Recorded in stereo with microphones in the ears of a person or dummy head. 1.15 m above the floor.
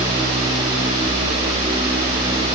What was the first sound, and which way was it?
Only background noise.